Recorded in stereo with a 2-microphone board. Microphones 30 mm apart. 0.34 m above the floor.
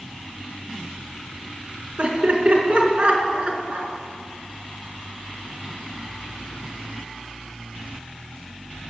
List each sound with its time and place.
2.0 s laughter: 45° right (ahead or behind), 3.5 m